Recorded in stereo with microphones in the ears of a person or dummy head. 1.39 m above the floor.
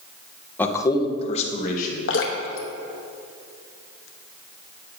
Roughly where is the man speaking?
Centre.